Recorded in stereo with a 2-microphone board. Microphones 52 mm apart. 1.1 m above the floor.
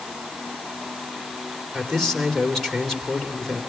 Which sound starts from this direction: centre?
A man speaking, at 1.7 s.